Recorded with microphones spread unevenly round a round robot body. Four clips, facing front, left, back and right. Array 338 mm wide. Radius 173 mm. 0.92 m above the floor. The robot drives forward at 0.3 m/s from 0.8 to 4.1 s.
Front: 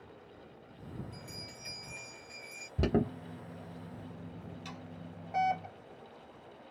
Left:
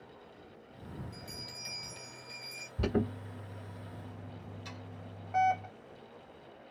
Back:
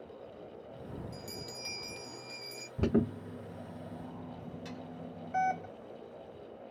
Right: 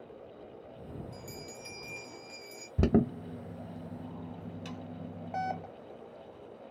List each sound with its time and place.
1.1 s a bell: 160° right, 0.6 m; by 2.7 s 170° right, 1.1 m
2.8 s an alarm: 85° right, 1.1 m; by 5.7 s 105° right, 1.1 m
4.7 s sawing: 100° right, 1.1 m